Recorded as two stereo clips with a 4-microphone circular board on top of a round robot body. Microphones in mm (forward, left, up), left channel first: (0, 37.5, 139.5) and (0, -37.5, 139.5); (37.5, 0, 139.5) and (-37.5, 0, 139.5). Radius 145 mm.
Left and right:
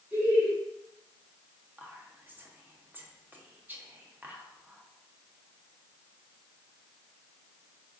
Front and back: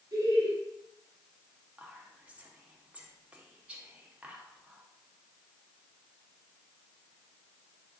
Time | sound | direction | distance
0.1 | laughter | 155° right | 1.7 m
1.8 | whispering | 125° right | 1.0 m